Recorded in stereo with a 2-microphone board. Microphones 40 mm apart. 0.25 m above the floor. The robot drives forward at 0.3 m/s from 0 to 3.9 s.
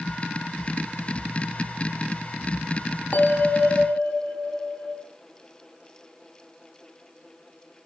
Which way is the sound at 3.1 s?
45° left (ahead or behind).